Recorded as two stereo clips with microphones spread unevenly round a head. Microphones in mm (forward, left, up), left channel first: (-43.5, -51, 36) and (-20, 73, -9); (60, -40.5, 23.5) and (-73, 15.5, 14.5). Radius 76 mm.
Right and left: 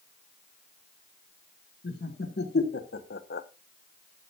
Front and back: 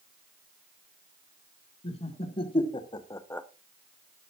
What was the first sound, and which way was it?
Laughter, 70° right.